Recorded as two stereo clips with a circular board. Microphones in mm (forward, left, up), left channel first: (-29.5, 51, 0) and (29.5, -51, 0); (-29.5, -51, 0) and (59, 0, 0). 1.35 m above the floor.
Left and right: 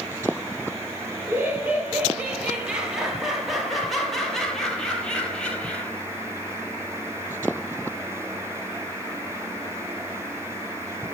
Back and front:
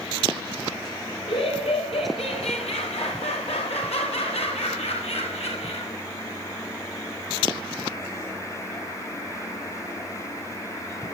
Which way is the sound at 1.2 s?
130° right.